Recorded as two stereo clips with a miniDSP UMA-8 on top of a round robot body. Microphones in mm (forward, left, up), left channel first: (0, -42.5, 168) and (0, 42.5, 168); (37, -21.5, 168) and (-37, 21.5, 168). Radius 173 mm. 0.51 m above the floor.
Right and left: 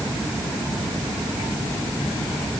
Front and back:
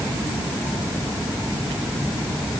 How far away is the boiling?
I don't hear boiling.